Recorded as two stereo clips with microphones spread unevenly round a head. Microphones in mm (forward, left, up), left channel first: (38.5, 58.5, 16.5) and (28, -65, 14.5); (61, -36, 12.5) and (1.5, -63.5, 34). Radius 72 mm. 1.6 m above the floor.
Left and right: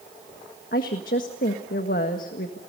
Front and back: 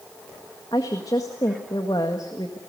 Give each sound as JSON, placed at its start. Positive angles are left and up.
{"t": 0.7, "sound": "a woman speaking", "azimuth_deg": 90, "distance_m": 1.7}